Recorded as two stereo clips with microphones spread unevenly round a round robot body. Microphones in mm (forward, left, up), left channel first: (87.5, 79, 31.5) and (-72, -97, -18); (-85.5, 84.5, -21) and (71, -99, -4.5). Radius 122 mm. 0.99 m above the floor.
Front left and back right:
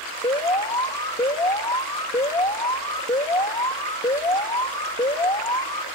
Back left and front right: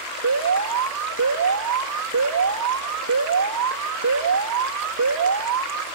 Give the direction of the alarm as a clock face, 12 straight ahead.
1 o'clock.